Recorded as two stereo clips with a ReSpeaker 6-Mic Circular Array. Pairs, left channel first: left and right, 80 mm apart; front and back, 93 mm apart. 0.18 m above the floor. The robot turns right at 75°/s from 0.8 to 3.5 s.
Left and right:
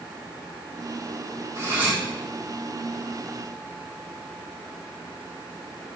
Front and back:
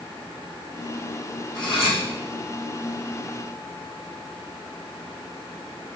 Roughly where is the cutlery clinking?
Ahead right.